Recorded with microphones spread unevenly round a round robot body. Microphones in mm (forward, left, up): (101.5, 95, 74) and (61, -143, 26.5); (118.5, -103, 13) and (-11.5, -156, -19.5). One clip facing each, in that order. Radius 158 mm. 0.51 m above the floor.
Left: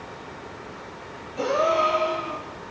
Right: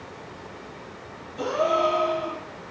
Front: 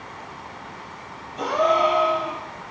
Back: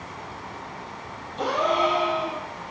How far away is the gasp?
About 3.5 m.